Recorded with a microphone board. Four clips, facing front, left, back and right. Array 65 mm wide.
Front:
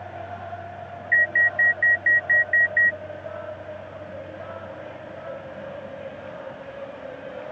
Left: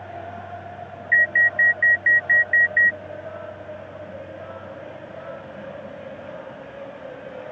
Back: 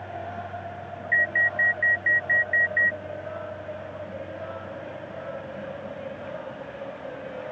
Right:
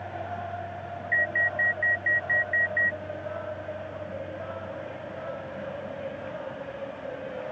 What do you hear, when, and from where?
1.1 s an alarm: 75° left